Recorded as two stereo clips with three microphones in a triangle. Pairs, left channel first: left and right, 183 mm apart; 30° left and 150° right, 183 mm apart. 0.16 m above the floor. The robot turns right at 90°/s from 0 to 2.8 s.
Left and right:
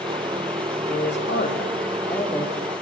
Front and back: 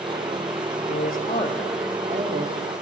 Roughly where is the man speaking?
Ahead left.